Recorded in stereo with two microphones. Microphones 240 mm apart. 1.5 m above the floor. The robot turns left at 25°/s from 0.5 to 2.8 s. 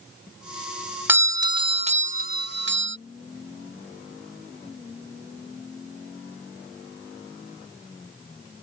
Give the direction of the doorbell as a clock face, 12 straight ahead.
12 o'clock.